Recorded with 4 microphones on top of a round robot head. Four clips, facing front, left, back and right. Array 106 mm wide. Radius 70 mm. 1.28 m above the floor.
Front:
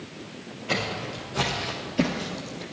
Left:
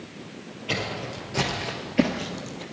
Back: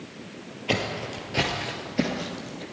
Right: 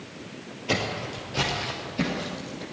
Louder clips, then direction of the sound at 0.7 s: Right 2 dB, back 1 dB; 160° right.